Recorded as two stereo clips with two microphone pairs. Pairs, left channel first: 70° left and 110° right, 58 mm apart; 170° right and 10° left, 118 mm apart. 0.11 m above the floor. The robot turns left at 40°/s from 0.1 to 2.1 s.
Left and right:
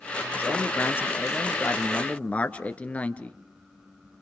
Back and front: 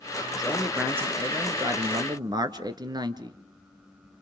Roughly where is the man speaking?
Left.